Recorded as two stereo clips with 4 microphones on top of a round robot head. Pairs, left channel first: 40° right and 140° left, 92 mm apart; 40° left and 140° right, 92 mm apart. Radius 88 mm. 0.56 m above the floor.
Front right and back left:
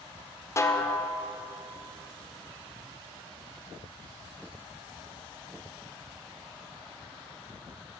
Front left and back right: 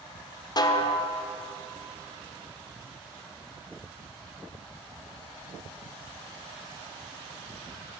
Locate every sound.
0.6 s a snare drum: 10° left, 0.6 m